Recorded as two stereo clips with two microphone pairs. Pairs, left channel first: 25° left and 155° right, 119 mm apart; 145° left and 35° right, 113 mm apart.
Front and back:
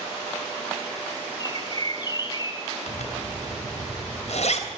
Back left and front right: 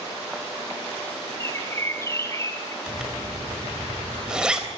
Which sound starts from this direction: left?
A bird, at 1.4 s.